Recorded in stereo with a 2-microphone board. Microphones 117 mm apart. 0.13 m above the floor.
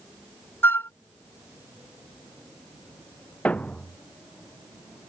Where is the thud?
15° left (ahead or behind).